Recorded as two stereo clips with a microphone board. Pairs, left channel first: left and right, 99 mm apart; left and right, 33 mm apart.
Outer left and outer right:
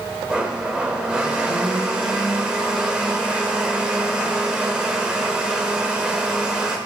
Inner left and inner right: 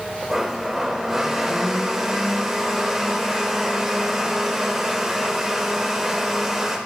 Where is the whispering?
I don't hear whispering.